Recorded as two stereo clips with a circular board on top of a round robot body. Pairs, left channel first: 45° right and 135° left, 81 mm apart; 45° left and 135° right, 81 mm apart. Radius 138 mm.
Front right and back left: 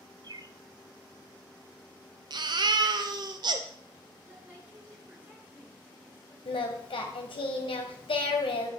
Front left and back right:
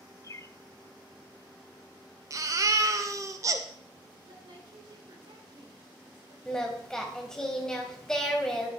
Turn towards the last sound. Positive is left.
turn(degrees=-40)